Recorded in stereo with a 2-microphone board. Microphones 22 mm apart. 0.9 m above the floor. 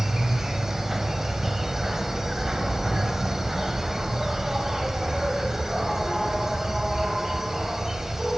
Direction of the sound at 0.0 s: 20° right (ahead or behind).